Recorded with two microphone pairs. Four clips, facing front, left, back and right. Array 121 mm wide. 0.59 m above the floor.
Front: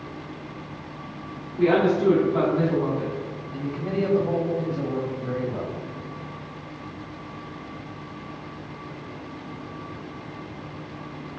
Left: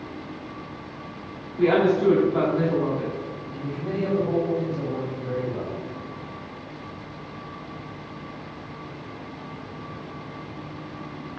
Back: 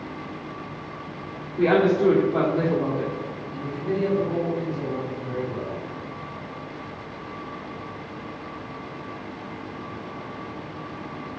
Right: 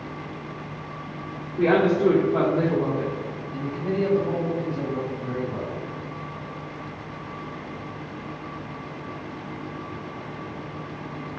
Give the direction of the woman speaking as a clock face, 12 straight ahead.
5 o'clock.